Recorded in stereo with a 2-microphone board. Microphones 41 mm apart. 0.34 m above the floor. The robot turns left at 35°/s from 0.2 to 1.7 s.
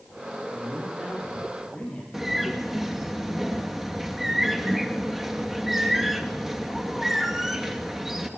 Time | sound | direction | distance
0.5 | a man speaking | 150° right | 9.5 m
2.1 | a bird | 10° right (ahead or behind) | 2.5 m